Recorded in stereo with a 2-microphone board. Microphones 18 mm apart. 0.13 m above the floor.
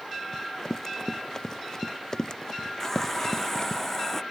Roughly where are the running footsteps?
Left.